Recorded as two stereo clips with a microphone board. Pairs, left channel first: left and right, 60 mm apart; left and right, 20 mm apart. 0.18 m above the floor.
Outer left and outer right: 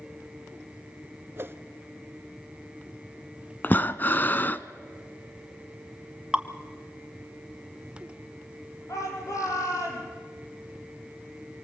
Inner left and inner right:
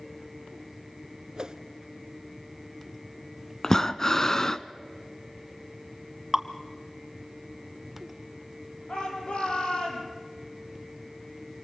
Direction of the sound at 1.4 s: 40° right (ahead or behind).